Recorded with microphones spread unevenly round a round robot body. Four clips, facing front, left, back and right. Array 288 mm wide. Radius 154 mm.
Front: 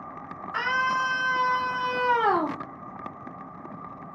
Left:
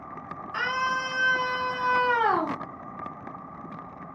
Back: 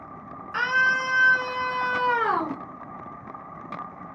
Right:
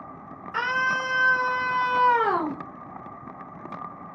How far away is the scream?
About 2.5 m.